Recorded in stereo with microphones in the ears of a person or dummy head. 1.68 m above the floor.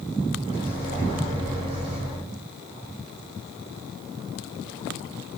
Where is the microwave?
45° right (ahead or behind), 2.5 m.